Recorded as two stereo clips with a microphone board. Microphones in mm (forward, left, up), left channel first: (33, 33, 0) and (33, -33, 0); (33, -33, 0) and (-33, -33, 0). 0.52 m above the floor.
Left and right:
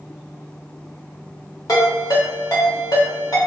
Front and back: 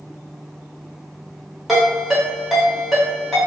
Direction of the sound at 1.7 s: 90° left.